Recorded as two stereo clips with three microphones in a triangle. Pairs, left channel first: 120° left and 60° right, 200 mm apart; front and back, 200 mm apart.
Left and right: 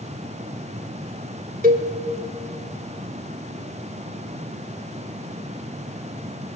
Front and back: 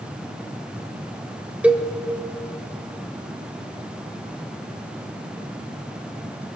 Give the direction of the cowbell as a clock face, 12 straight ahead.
3 o'clock.